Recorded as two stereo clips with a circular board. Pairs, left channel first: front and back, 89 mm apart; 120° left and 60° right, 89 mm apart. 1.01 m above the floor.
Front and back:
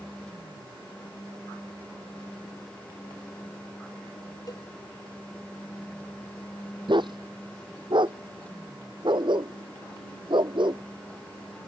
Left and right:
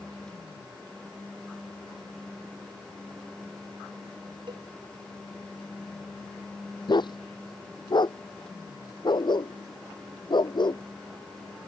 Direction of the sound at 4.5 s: 45° right.